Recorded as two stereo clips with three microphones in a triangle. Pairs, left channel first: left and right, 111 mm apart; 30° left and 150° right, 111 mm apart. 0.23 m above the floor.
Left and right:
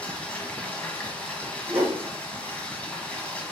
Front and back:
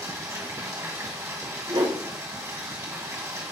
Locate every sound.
0.0 s running water: 160° left, 1.6 m
1.7 s a whoosh: 170° right, 3 m